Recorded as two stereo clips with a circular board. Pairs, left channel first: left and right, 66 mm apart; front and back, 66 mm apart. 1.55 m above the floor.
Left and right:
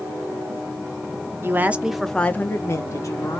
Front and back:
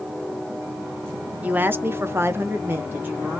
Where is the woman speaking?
125° right, 0.6 m; by 3.4 s 120° left, 1.1 m.